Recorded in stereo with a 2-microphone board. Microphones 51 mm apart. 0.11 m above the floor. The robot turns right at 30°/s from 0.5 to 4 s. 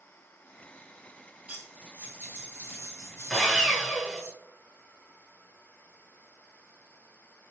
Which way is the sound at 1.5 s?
155° right.